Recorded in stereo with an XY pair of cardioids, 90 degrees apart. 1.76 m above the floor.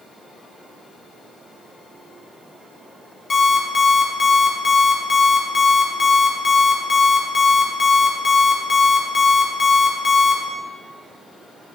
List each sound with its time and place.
3.3 s an alarm clock: 40° left, 3.5 m